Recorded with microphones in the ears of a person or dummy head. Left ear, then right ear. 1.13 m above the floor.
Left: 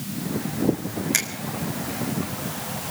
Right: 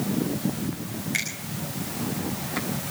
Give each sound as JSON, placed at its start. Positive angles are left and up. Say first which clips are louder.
{"t": 1.1, "sound": "a finger snap", "louder": "left 2 dB", "side_deg": 35, "distance_m": 1.9}